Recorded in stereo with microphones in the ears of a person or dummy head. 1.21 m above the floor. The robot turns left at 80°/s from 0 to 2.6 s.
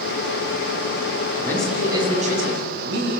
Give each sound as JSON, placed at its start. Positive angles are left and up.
{"t": 1.4, "sound": "a man speaking", "azimuth_deg": 15, "distance_m": 9.5}